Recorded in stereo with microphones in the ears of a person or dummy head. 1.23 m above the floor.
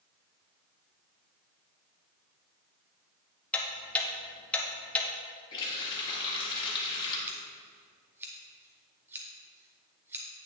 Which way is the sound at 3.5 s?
10° left (ahead or behind).